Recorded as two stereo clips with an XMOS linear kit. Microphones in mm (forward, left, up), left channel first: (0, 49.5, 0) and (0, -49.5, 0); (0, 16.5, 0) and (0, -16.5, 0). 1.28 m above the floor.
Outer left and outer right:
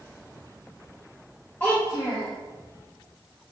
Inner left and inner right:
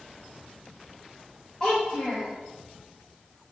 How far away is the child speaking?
About 1.1 m.